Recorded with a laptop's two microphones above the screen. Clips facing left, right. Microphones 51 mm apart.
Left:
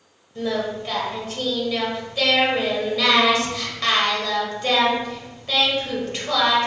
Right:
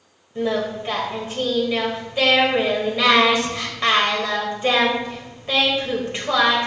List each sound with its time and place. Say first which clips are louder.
0.3 s singing: right 2 dB; 20° right (ahead or behind), 1.2 m